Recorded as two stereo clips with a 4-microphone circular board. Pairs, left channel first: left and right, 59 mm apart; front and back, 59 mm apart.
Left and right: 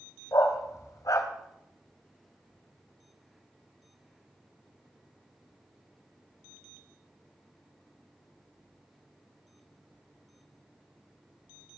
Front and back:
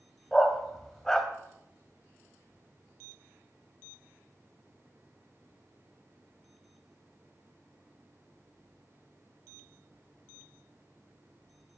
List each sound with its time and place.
0.3 s a dog barking: 80° left, 1.5 m